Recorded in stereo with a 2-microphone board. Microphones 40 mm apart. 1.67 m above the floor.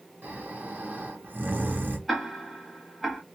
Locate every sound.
0.2 s snoring: 55° right (ahead or behind), 0.9 m
2.1 s ticking: centre (ahead or behind), 1.0 m